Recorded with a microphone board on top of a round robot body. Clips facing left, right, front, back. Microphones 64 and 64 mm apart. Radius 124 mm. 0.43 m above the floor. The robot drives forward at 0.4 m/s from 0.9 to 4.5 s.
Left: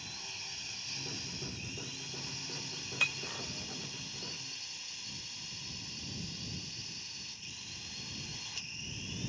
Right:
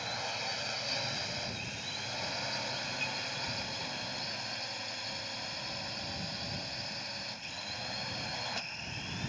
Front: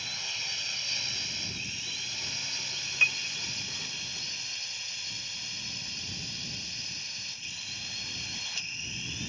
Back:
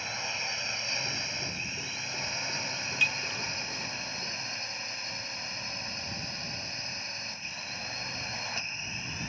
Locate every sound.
0.0 s a drone: 120° right; by 9.3 s 125° right
3.0 s breaking glass: 65° left; by 3.4 s 70° left